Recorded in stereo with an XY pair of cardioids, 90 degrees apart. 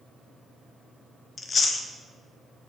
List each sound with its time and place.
1.4 s chewing: 45° left, 0.8 m